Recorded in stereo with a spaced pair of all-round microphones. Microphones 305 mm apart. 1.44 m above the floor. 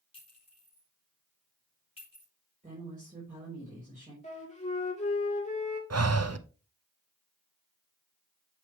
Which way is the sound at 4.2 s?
20° left (ahead or behind).